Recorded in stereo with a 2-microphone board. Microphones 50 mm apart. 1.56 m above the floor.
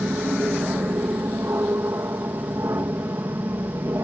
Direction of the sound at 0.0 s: 65° right (ahead or behind).